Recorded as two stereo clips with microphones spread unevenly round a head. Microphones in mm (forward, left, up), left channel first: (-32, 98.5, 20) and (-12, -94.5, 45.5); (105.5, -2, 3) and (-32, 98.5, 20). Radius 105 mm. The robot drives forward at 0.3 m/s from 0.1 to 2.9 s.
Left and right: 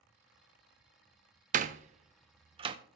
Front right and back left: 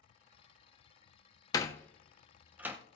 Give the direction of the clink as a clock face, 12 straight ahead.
No clink in this recording.